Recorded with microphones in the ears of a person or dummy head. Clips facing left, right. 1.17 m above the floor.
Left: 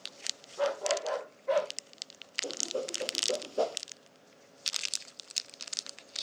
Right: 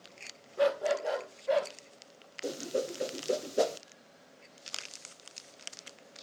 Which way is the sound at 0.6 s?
30° right (ahead or behind).